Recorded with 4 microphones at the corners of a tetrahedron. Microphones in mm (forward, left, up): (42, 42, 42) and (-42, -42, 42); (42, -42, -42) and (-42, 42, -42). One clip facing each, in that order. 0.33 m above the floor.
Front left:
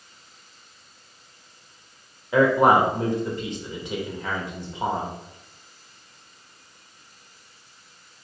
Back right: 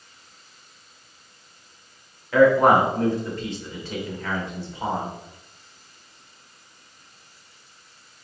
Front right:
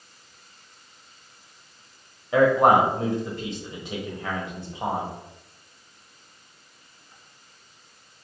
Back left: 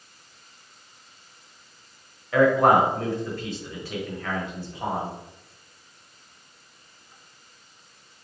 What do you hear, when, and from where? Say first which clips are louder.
2.3 s a man speaking: back right 2 dB, front right 1 dB; 5° right, 1.3 m